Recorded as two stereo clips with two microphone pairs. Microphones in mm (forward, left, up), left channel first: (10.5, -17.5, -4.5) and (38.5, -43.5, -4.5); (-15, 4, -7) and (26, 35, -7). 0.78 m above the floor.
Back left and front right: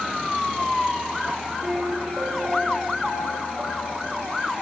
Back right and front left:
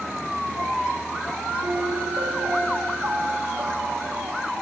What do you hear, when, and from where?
1.6 s a piano: 20° left, 8 m